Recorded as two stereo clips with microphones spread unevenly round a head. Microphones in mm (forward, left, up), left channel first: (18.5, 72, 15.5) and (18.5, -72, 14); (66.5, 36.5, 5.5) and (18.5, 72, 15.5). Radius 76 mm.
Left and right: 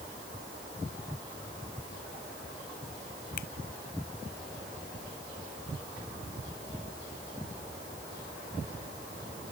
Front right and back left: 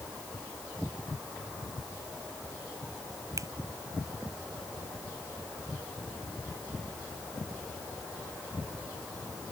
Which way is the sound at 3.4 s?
125° left.